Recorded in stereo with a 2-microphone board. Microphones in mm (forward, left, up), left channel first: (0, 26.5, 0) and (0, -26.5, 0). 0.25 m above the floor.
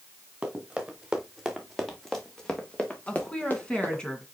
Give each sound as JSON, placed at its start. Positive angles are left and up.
{"t": 0.4, "sound": "running footsteps", "side_deg": -15, "distance_m": 3.0}
{"t": 3.1, "sound": "a woman speaking", "side_deg": 15, "distance_m": 2.0}